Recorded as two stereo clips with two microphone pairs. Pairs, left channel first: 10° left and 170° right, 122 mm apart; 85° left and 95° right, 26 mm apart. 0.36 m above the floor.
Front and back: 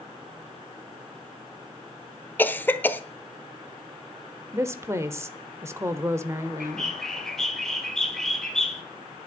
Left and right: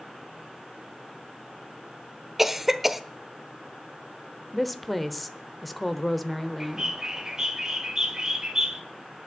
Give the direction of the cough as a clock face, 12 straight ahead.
1 o'clock.